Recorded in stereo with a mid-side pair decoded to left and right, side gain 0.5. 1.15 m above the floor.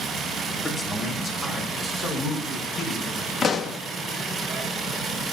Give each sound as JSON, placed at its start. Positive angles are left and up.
{"t": 0.6, "sound": "a man speaking", "azimuth_deg": 30, "distance_m": 4.0}
{"t": 3.4, "sound": "a pop", "azimuth_deg": 45, "distance_m": 0.9}